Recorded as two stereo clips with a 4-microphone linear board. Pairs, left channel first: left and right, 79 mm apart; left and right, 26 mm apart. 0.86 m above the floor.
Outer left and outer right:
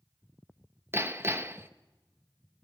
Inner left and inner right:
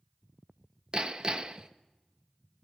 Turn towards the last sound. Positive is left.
turn(degrees=-30)  # may be behind; listen again after turning